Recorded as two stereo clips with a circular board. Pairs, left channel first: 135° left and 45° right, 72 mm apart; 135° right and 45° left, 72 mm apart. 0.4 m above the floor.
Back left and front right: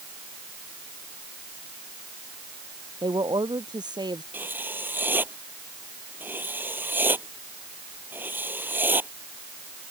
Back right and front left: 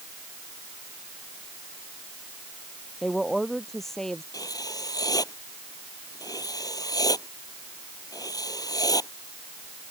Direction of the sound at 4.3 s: 105° right.